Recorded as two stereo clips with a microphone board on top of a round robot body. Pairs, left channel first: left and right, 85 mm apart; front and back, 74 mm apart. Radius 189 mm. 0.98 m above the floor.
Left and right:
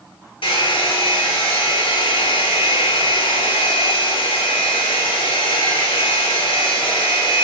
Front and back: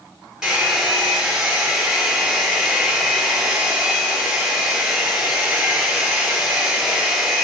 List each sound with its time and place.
0.4 s a hair dryer: 100° left, 1.4 m